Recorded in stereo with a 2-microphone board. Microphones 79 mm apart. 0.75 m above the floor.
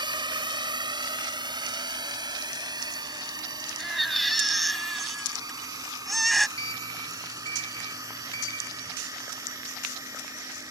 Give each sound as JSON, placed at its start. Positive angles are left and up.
{"t": 0.0, "sound": "a drone", "side_deg": -70}
{"t": 3.8, "sound": "a baby crying", "side_deg": 0}
{"t": 6.6, "sound": "a sliding door", "side_deg": 45}